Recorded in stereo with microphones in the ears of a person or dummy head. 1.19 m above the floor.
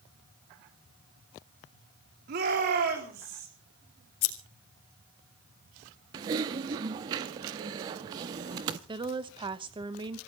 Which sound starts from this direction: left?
Scissors, at 4.2 s.